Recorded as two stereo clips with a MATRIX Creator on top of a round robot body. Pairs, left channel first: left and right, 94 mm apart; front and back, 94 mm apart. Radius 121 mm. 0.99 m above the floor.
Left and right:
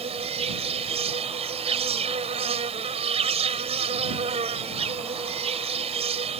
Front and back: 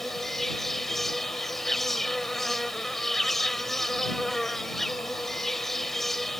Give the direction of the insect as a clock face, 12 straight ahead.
3 o'clock.